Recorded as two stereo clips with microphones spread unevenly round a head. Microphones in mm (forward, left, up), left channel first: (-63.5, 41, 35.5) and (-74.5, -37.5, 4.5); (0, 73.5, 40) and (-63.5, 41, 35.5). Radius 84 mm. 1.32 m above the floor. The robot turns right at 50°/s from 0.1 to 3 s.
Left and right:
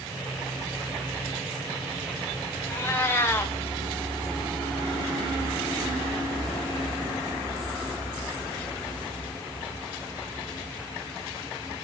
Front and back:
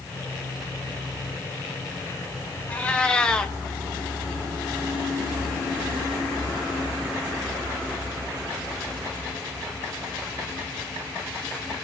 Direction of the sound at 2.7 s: 75° left.